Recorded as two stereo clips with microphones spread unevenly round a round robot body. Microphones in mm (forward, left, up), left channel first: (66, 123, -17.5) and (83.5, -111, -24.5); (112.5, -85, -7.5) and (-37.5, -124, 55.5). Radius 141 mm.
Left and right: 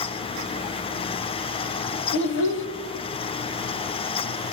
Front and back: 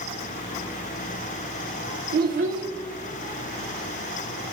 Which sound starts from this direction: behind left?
A child speaking, at 2.1 s.